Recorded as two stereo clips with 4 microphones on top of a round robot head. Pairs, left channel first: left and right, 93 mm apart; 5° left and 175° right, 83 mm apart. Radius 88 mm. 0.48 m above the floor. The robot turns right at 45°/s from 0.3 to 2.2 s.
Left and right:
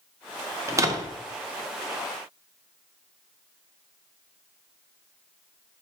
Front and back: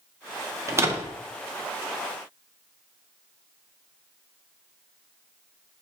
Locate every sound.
0.7 s a door slam: 135° right, 0.5 m; by 1.2 s 115° right, 0.5 m